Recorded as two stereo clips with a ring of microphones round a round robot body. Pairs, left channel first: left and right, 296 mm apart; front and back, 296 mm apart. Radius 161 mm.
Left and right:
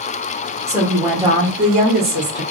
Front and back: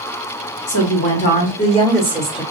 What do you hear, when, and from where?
0.7 s a woman speaking: 15° right, 1.7 m; by 2.4 s 100° right, 1.4 m